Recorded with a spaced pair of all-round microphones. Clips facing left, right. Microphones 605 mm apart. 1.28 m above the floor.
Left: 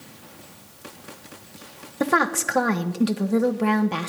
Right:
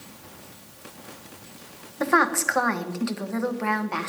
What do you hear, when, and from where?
2.0 s a woman speaking: 55° left (ahead or behind), 1.1 m